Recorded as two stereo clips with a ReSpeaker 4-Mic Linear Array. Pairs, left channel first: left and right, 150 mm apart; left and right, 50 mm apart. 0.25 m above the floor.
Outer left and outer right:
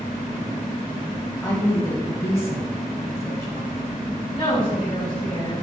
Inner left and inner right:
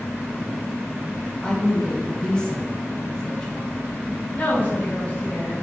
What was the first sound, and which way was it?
A woman speaking, 15° left (ahead or behind).